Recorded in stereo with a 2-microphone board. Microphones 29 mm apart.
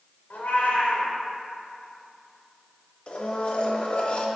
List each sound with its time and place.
0.3 s a cat meowing: 75° left (ahead or behind), 1.5 m
3.1 s a blender: 45° left (ahead or behind), 1.0 m